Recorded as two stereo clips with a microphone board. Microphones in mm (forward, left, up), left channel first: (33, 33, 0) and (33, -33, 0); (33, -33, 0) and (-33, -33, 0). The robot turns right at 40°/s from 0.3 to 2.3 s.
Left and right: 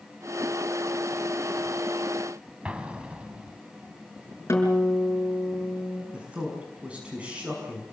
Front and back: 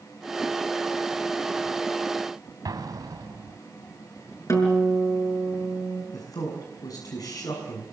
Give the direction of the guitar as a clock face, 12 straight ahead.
11 o'clock.